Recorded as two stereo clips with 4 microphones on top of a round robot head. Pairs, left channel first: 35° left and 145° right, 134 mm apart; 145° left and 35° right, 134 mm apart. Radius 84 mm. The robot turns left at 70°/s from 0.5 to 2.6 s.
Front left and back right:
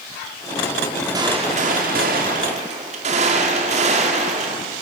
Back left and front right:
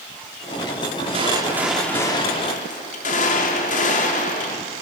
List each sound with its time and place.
1.1 s a gunshot: 80° right, 2 m; by 4.6 s 175° left, 2 m